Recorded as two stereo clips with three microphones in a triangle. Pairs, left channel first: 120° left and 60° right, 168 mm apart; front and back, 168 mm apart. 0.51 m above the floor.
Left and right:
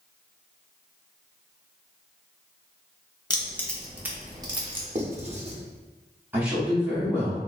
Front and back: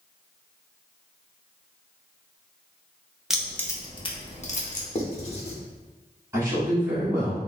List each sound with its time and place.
3.3 s keys jangling: 95° left, 0.6 m; by 4.8 s 15° right, 0.9 m
5.0 s writing: 30° right, 0.7 m
6.3 s a man speaking: 130° right, 0.9 m